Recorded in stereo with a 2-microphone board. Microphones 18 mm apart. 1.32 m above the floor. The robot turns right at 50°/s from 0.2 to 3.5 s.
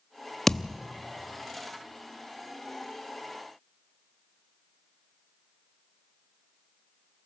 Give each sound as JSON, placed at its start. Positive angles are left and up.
{"t": 0.5, "sound": "a thud", "side_deg": 15, "distance_m": 0.7}